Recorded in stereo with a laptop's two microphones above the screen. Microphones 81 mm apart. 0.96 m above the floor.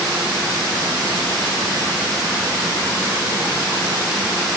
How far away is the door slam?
No door slam in this recording.